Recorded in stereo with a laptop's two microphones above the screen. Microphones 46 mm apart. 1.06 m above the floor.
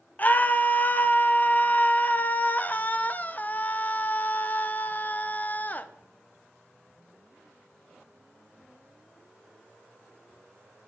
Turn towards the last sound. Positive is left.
turn(degrees=35)  # may be behind; listen again after turning